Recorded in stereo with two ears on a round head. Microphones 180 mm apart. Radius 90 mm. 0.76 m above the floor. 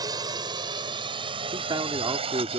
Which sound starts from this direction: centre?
A drone, at 0.0 s.